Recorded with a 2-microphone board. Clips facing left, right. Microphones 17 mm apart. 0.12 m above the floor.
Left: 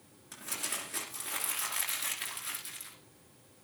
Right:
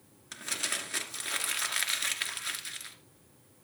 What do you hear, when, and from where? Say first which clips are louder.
0.3 s crumpling: right 5 dB; 40° right (ahead or behind), 2.5 m